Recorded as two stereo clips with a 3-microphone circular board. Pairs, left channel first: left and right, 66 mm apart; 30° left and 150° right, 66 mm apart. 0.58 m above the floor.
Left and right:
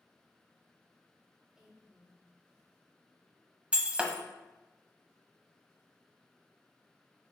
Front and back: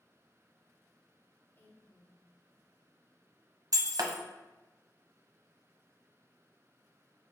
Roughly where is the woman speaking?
Ahead.